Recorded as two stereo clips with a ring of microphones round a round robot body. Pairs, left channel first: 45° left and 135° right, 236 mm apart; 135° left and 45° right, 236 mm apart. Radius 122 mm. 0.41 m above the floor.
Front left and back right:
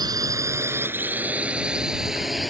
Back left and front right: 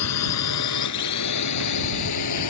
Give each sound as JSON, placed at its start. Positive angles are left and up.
{"t": 0.0, "sound": "a drone", "azimuth_deg": 150}